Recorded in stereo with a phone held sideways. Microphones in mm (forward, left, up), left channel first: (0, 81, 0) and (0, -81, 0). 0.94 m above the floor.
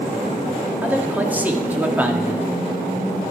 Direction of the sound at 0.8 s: 10° right (ahead or behind).